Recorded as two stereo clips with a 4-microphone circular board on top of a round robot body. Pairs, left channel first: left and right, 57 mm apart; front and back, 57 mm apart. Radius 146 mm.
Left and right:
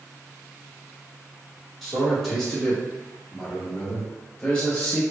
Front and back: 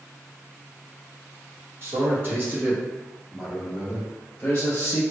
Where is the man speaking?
Straight behind, 1.7 m; by 5.0 s 35° left, 1.7 m.